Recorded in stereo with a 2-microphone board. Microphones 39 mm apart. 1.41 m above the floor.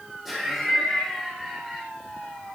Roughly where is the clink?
I don't hear a clink.